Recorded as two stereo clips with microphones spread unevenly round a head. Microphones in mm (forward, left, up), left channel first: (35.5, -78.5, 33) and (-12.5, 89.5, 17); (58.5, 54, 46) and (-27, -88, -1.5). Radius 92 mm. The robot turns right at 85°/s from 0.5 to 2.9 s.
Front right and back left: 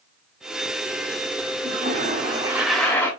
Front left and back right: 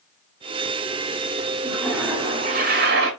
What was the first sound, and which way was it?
A toilet flushing, 110° left.